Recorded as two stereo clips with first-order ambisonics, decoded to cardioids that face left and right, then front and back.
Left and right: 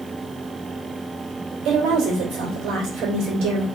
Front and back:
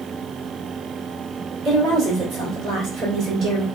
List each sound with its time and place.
1.6 s a woman speaking: 125° right, 2.5 m